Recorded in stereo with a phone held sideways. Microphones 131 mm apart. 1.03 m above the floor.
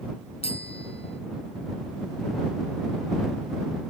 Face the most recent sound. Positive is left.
turn(degrees=50)  # may be behind; listen again after turning